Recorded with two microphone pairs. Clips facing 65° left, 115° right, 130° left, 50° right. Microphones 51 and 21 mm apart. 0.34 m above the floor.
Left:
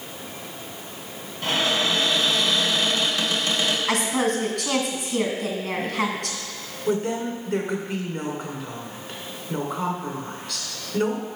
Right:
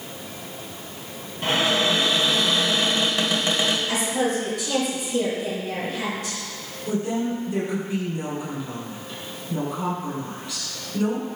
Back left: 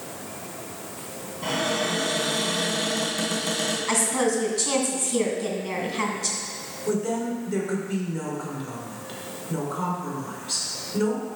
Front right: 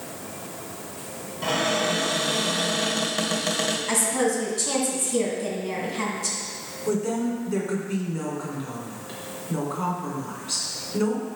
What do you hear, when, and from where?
1.4 s a cupboard door: 60° right, 1.7 m
3.9 s a woman speaking: 50° left, 2 m
6.9 s a woman speaking: 30° left, 2.5 m